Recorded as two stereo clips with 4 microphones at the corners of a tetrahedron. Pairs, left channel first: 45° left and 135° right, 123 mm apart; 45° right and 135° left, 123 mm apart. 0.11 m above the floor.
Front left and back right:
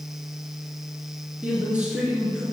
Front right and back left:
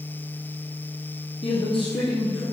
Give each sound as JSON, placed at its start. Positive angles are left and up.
{"t": 1.4, "sound": "a man speaking", "azimuth_deg": -55, "distance_m": 1.8}